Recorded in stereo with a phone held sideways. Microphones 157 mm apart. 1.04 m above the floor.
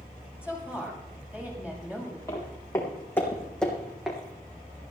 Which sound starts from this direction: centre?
A woman speaking, at 0.4 s.